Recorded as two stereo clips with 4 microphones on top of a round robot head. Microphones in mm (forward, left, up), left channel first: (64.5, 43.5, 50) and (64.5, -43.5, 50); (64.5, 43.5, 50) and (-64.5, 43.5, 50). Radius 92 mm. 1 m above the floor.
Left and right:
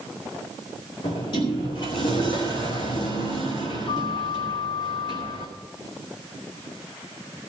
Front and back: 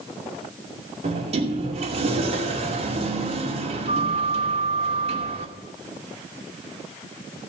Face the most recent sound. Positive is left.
turn(degrees=140)